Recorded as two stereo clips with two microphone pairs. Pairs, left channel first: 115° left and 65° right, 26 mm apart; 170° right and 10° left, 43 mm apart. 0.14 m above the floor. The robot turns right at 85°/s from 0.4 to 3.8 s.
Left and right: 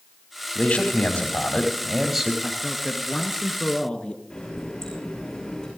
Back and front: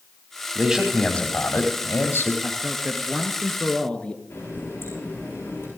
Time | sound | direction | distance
0.6 | a man speaking | 70° left | 4 m
2.4 | a man speaking | 25° left | 1.8 m
4.3 | a running tap | 175° left | 7.5 m